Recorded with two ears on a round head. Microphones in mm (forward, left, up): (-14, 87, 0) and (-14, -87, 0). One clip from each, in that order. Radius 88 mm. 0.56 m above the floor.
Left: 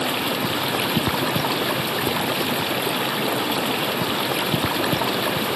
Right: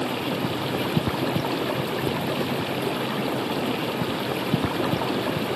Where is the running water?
35° left (ahead or behind).